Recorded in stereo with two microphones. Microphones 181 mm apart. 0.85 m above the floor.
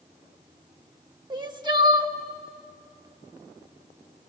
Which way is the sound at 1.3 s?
25° right (ahead or behind).